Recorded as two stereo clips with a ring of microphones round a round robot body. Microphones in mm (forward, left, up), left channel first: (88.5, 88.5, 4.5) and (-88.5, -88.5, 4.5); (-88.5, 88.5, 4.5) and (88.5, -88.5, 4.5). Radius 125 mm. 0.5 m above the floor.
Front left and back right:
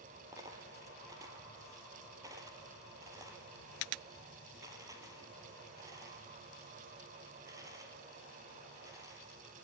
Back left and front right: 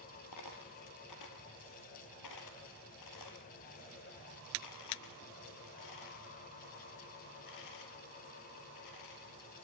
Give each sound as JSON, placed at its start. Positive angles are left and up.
{"t": 0.3, "sound": "a dropped coin", "azimuth_deg": 150, "distance_m": 2.5}